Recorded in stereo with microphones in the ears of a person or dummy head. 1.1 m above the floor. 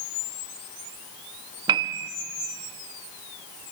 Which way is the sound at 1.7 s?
20° right (ahead or behind).